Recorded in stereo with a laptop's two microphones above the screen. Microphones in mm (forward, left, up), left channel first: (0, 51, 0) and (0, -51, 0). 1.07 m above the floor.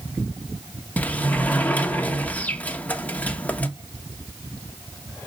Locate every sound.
1.0 s a sliding door: 15° left (ahead or behind), 1.4 m